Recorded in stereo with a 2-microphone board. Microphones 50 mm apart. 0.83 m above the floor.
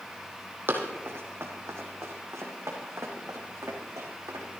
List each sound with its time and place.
0.7 s running footsteps: 45° right (ahead or behind), 1.9 m; by 4.5 s 80° right, 3.5 m